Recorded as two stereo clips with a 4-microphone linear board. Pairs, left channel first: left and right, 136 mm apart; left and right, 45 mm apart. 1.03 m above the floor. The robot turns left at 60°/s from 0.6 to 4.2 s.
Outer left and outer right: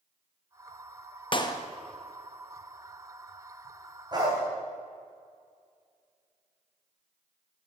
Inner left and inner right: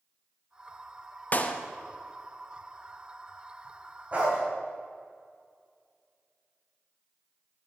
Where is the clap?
40° left (ahead or behind), 0.7 m; by 1.6 s 20° left (ahead or behind), 0.7 m.